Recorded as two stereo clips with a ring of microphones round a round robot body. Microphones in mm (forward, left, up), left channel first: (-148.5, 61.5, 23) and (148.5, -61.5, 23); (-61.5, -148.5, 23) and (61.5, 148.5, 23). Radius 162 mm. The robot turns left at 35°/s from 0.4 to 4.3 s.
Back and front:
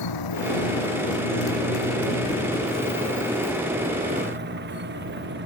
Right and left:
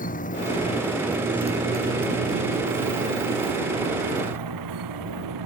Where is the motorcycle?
Straight behind; by 5.5 s 35° left.